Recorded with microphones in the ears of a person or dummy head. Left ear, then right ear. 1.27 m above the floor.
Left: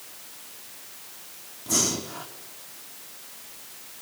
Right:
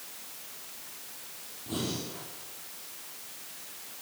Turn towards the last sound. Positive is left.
turn(degrees=65)  # may be behind; listen again after turning